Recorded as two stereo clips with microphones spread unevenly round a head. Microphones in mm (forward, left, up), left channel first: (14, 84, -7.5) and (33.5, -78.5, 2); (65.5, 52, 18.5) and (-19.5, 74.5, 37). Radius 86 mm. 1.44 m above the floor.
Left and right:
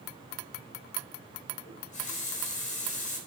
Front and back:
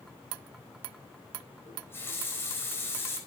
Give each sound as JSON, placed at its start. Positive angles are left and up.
{"t": 1.7, "sound": "a running tap", "azimuth_deg": 50, "distance_m": 4.5}